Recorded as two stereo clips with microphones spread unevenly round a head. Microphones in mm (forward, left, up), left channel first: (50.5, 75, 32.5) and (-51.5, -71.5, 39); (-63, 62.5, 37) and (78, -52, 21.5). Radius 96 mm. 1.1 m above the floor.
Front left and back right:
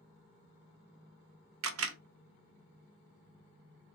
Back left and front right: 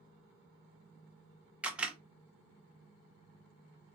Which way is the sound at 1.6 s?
125° right.